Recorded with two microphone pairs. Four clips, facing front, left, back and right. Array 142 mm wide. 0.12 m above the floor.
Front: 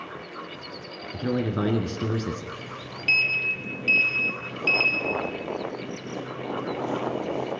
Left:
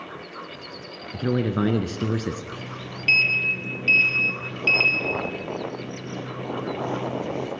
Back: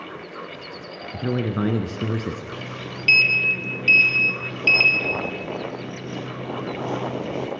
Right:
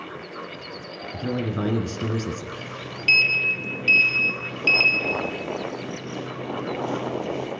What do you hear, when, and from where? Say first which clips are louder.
1.1 s a man speaking: left 4 dB, back 1 dB; 100° left, 1.8 m
2.5 s a sliding door: right 1 dB, back 4 dB; 160° left, 0.8 m